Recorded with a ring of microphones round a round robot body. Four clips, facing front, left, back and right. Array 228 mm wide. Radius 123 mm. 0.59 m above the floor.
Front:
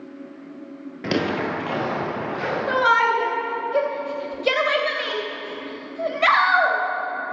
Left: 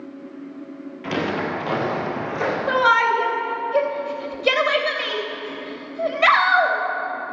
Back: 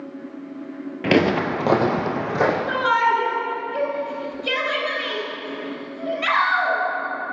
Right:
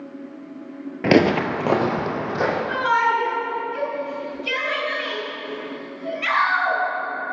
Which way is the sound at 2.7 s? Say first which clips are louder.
Left 5 dB, front 1 dB; 55° left.